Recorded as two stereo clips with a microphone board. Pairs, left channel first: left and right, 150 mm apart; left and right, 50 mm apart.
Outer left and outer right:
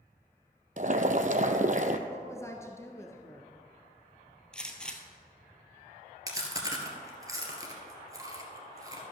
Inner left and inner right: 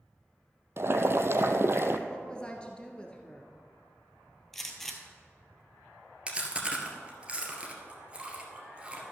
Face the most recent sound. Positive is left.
turn(degrees=-25)  # may be behind; listen again after turning